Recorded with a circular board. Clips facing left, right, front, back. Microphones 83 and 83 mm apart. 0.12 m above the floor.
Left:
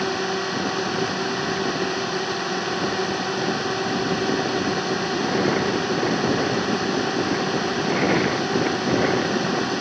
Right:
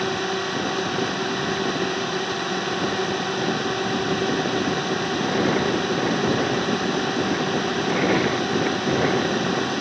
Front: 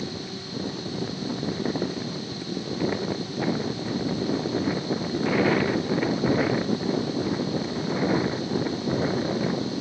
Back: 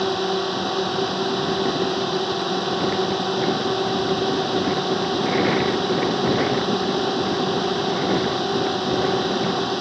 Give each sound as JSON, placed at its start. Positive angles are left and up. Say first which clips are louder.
{"t": 0.0, "sound": "a drone", "louder": "even, back 13 dB", "azimuth_deg": 175}